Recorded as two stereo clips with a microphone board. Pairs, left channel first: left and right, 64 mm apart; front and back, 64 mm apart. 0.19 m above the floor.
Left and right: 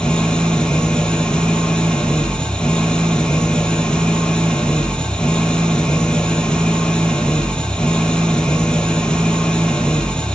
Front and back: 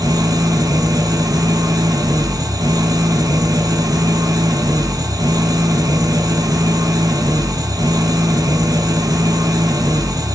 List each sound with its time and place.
0.0 s an engine running: 165° left, 3 m